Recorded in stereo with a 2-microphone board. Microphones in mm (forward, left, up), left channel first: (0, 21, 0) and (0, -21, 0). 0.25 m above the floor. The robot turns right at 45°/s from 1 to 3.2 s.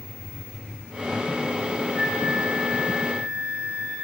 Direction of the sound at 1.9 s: 10° right.